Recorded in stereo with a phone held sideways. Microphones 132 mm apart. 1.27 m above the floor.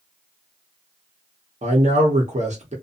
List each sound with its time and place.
1.6 s a man speaking: 60° right (ahead or behind), 0.9 m